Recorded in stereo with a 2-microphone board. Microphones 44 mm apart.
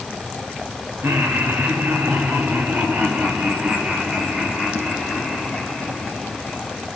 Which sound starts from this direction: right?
Laughter, at 1.0 s.